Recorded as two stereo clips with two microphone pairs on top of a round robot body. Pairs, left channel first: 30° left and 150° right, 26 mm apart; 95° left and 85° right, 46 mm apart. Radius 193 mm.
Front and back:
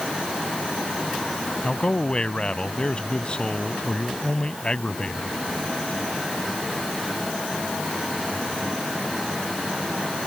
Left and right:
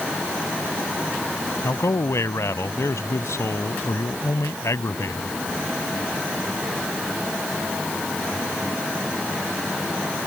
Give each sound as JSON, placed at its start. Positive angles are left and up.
{"t": 1.6, "sound": "a man speaking", "azimuth_deg": 90}